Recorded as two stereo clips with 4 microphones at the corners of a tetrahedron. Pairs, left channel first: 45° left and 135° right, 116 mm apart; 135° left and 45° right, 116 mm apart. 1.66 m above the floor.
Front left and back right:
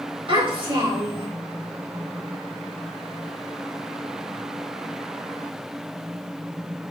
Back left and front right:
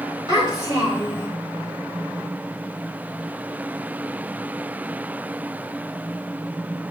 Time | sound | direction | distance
0.3 | a child speaking | 100° right | 3.5 m